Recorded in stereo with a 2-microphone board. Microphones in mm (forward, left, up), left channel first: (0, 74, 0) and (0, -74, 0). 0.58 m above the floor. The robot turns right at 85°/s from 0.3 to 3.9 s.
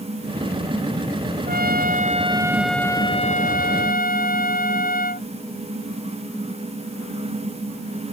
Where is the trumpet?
105° right; by 5.3 s 105° left.